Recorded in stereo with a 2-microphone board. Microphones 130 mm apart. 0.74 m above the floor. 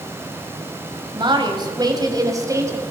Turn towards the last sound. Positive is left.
turn(degrees=-25)  # may be behind; listen again after turning